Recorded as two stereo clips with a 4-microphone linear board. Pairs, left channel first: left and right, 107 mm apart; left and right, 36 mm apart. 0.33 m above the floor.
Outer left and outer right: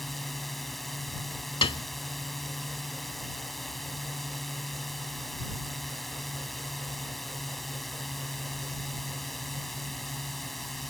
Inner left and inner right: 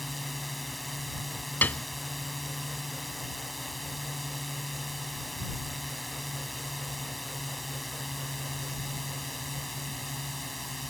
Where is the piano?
60° left (ahead or behind).